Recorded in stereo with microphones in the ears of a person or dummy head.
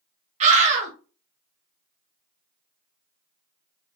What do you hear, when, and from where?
0.4 s a scream: 40° right (ahead or behind), 1.4 m